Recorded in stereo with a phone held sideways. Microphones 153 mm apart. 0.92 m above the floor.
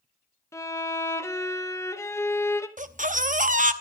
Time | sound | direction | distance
0.5 | a violin | 20° left (ahead or behind) | 0.9 m
2.8 | a baby crying | 60° right (ahead or behind) | 0.7 m